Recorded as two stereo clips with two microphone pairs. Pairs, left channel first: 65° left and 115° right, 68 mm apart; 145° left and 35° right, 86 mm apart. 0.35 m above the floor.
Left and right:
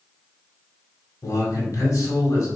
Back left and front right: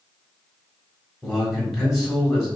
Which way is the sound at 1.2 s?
50° left.